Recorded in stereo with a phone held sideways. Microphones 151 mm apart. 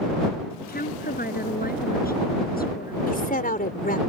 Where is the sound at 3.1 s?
70° left (ahead or behind).